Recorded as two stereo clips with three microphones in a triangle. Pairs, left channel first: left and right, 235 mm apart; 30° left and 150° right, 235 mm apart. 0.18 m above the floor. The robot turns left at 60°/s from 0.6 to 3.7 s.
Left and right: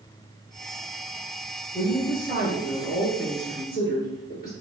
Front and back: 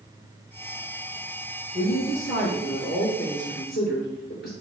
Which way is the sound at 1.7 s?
165° left.